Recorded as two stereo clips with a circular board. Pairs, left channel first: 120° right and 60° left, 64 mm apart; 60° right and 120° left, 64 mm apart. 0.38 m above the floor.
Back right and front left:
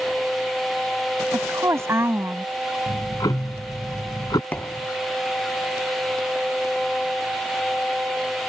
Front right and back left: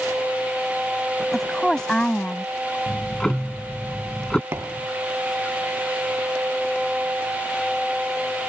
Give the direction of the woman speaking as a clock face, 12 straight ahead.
11 o'clock.